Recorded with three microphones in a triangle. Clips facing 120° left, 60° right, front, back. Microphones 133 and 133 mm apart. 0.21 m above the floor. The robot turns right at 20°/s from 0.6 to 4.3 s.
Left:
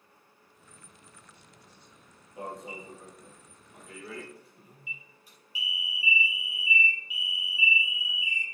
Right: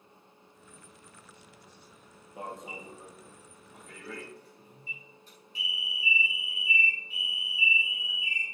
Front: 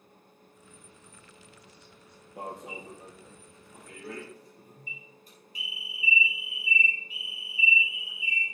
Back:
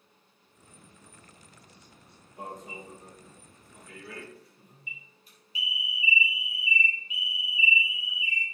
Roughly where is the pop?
No pop in this recording.